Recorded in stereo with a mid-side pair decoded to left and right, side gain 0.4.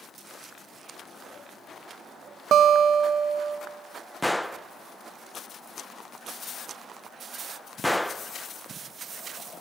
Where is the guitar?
65° right, 0.7 m.